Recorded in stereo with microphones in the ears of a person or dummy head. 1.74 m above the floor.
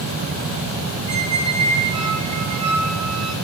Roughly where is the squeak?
Right.